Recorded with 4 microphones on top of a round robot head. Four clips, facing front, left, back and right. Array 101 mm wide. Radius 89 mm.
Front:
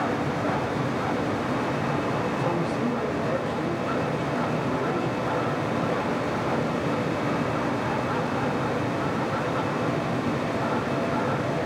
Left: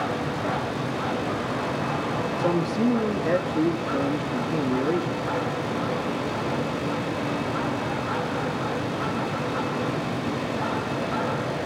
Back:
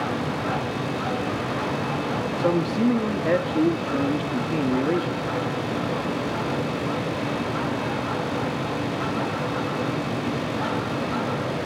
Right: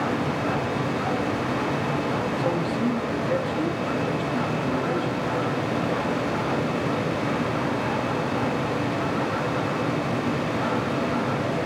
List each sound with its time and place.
2.4 s a man speaking: 155° left, 2.5 m